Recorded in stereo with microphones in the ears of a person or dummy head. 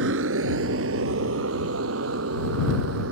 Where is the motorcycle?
65° right (ahead or behind); by 3.1 s 85° right.